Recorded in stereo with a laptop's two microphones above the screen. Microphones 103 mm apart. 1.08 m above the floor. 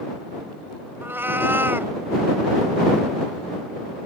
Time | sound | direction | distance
1.0 | a cat meowing | 20° right (ahead or behind) | ?